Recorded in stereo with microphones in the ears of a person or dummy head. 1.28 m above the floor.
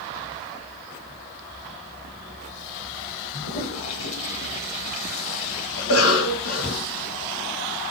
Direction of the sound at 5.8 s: 80° left.